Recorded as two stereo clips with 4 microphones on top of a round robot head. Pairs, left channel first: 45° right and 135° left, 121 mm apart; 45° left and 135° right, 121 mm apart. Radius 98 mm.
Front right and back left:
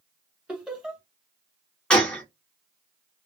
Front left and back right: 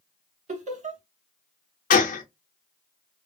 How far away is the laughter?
About 1.3 m.